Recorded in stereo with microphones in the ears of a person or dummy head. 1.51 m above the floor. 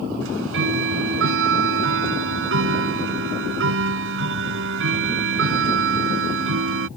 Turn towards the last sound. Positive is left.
turn(degrees=-80)